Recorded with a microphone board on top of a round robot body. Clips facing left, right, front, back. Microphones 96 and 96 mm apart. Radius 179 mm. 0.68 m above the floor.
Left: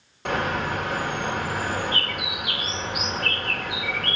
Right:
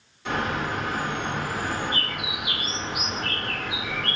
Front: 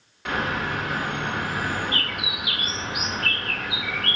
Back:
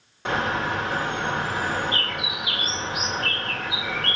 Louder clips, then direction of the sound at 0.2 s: Left 2 dB, back 2 dB; 120° left.